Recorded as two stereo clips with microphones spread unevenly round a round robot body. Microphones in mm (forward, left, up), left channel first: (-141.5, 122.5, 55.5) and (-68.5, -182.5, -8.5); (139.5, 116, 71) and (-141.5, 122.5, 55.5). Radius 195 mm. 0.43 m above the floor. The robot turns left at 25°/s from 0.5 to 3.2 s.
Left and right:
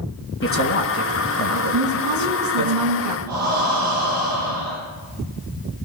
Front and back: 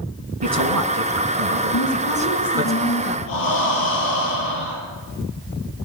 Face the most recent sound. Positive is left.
turn(degrees=-10)